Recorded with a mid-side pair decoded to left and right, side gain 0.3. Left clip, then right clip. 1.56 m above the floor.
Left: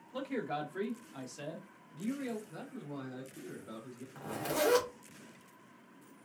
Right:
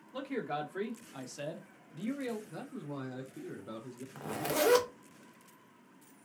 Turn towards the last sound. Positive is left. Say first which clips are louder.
# right 2 dB
turn(degrees=-55)